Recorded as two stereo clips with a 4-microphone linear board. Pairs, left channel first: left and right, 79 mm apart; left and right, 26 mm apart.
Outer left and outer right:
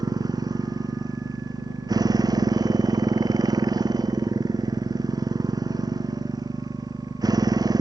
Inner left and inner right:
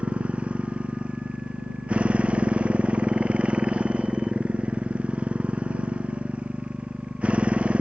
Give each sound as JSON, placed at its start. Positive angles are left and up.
{"t": 0.0, "sound": "a motorcycle", "side_deg": -55}